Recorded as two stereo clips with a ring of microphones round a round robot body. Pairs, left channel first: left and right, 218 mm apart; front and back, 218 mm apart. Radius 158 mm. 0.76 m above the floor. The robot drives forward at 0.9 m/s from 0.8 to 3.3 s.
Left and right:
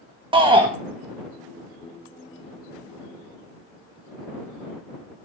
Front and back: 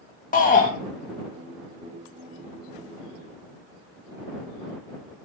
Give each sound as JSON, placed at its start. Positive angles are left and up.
{"t": 0.3, "sound": "a shout", "azimuth_deg": -35, "distance_m": 1.3}